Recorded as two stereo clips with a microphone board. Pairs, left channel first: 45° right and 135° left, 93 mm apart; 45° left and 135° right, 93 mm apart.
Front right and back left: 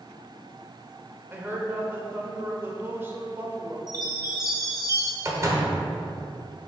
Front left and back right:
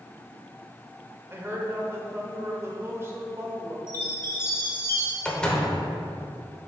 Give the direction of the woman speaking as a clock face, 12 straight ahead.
6 o'clock.